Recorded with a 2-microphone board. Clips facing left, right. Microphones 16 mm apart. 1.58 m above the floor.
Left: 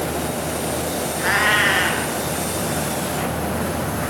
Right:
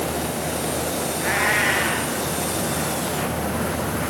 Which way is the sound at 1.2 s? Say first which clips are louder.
Left 4 dB; 75° left (ahead or behind).